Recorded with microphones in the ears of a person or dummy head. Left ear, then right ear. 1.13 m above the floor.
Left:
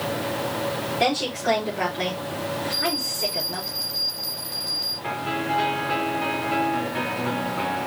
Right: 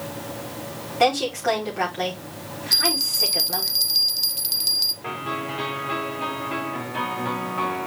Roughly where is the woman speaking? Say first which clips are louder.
Right 4 dB; right.